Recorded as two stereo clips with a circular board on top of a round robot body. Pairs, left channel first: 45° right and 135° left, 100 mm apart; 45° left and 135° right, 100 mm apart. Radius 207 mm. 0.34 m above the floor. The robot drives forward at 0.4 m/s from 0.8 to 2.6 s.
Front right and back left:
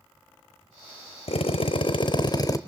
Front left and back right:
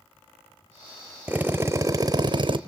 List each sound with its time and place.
1.3 s a drill: 60° right, 0.8 m; by 2.6 s 100° right, 0.7 m